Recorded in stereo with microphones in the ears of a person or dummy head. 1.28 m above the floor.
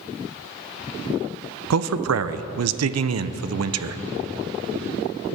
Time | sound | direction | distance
1.7 | a man speaking | 80° right | 0.5 m